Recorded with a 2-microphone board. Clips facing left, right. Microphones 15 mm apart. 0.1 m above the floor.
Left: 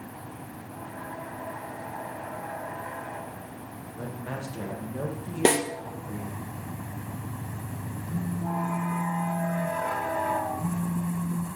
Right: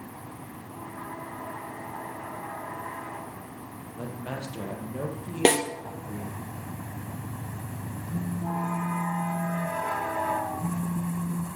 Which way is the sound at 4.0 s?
60° right (ahead or behind).